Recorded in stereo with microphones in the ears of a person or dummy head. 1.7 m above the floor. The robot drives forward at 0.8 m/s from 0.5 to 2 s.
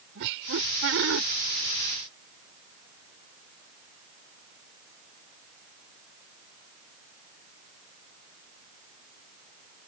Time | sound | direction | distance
0.1 | laughter | 70° right (ahead or behind) | ?